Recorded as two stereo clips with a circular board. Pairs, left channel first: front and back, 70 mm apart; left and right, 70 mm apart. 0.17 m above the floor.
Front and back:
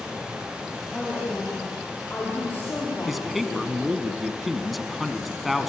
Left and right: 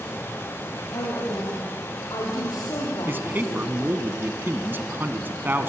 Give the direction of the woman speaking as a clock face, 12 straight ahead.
9 o'clock.